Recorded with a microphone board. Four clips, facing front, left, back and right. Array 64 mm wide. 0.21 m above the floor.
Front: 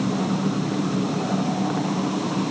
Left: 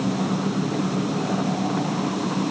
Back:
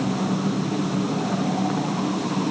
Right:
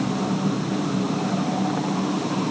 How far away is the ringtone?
I don't hear a ringtone.